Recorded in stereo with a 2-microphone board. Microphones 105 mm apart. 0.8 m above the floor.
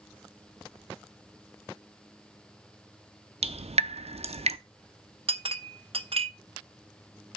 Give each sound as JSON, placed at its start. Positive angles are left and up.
{"t": 3.4, "sound": "dripping", "side_deg": -85, "distance_m": 0.6}
{"t": 5.3, "sound": "a clink", "side_deg": -65, "distance_m": 0.6}